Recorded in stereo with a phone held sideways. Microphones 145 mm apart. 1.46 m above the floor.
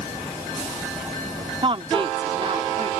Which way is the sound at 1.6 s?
40° right (ahead or behind).